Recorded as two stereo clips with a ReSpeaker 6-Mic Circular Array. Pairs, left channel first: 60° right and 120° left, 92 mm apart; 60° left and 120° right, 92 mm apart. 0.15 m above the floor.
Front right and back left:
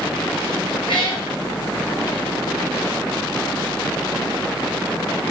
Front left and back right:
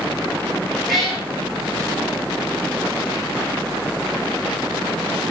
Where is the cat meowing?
35° right, 5 m.